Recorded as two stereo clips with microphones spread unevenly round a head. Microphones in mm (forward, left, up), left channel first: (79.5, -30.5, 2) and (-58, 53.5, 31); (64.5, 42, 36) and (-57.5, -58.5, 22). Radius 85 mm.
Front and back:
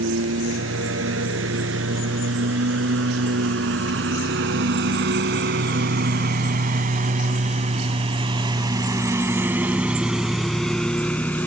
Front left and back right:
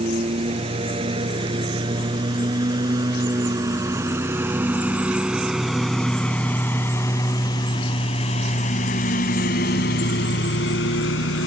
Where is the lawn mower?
160° left; by 11.5 s 55° left.